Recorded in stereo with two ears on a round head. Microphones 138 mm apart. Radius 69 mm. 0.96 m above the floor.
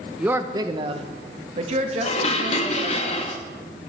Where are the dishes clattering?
40° left (ahead or behind), 0.8 m.